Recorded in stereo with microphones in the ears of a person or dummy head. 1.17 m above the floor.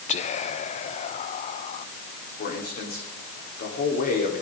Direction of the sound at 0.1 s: 30° left (ahead or behind).